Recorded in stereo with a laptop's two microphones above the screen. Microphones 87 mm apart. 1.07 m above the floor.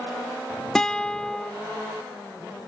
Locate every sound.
0.8 s a guitar: 5° left (ahead or behind)